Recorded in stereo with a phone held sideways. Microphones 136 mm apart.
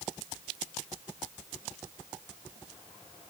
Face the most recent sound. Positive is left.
No sound to turn to.